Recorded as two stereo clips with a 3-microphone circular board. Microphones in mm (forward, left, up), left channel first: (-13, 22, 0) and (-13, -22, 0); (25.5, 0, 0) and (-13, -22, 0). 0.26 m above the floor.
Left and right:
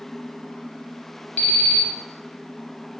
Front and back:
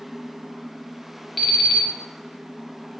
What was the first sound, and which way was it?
An alarm clock, 115° left.